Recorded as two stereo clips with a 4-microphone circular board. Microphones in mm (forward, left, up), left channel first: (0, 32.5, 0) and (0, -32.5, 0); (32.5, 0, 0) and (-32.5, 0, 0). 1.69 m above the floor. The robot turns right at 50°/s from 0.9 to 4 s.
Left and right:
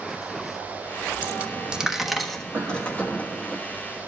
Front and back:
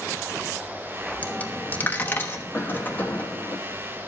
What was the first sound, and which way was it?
A dropped coin, 50° right.